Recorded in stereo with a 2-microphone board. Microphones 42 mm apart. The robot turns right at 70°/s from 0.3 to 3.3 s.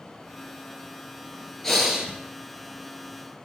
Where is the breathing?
170° left, 1.1 m; by 2.1 s 155° right, 1.1 m.